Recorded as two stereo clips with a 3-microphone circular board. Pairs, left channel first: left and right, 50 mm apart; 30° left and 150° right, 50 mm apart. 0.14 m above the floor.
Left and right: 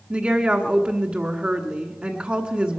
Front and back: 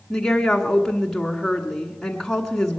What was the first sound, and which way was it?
A woman speaking, 45° right.